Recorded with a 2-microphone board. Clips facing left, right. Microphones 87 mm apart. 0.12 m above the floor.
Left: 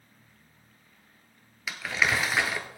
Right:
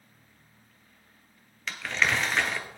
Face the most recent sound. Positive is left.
turn(degrees=5)  # may be behind; listen again after turning